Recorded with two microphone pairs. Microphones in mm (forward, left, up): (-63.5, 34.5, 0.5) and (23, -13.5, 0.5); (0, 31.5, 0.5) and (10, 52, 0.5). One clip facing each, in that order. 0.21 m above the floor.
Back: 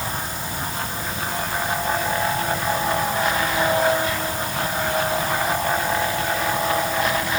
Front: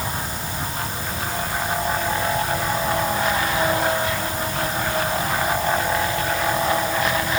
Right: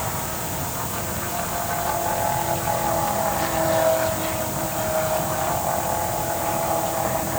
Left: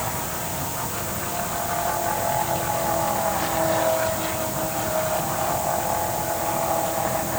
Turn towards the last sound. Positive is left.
No sound to turn to.